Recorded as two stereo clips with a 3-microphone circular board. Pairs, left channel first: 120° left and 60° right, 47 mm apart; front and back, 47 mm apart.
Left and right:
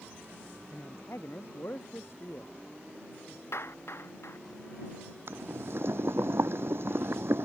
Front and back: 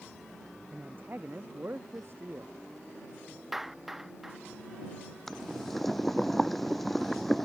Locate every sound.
0.7 s a man speaking: 135° left; by 2.5 s 150° left
3.5 s a clap: 95° left
5.3 s boiling: 85° right